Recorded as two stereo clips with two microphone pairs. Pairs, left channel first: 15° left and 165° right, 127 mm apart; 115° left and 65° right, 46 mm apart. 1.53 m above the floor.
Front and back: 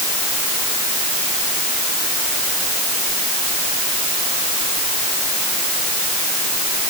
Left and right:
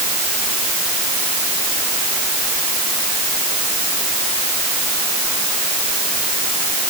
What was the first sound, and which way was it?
Only background noise.